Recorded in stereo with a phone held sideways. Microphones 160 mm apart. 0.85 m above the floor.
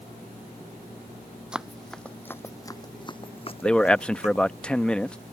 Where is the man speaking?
5° left (ahead or behind).